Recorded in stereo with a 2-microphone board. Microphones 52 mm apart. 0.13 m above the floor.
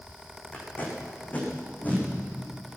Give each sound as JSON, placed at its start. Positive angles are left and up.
{"t": 0.5, "sound": "tape being pulled", "side_deg": 30, "distance_m": 6.0}